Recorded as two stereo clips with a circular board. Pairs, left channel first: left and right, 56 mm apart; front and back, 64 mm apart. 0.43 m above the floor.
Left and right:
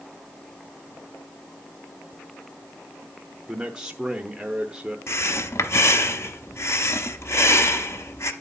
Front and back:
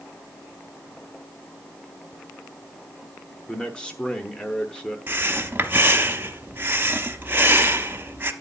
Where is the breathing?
125° left, 0.8 m.